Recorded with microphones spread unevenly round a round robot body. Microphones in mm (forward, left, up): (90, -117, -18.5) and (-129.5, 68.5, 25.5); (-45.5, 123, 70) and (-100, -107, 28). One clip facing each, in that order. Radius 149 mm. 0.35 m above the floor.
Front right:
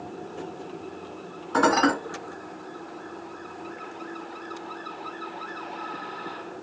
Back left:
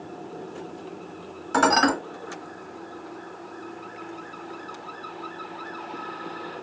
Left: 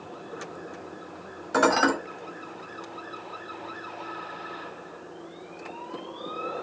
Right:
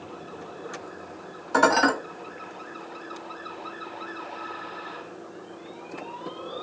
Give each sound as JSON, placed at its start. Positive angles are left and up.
{"t": 1.5, "sound": "dishes clattering", "azimuth_deg": 150, "distance_m": 1.2}